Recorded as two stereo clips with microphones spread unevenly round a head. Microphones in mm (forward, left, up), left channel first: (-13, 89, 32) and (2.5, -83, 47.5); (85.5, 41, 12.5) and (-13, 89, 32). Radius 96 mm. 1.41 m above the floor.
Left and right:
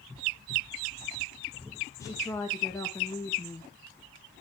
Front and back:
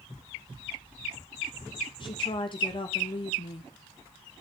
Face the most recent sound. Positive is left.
turn(degrees=20)